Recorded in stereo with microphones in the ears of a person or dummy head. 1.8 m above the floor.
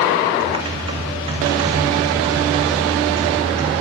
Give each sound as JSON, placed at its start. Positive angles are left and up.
{"t": 0.4, "sound": "typing on a keyboard", "side_deg": -30, "distance_m": 3.0}